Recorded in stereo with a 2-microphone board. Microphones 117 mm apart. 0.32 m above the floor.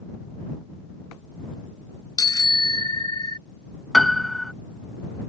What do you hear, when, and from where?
2.2 s a bicycle bell: 35° left (ahead or behind); by 3.4 s 40° left (ahead or behind)
3.9 s a piano: centre (ahead or behind)